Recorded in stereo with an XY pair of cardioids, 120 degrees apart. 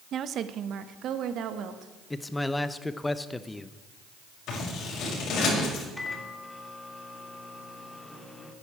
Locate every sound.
0.1 s a woman speaking: 50° right, 0.8 m; by 1.9 s 65° right, 1.8 m
2.1 s a man speaking: 15° left, 0.8 m
4.5 s scissors: 65° left, 6 m
6.0 s a microwave: 5° left, 2.5 m